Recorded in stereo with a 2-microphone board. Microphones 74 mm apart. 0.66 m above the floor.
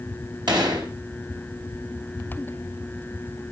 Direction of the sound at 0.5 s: 75° right (ahead or behind).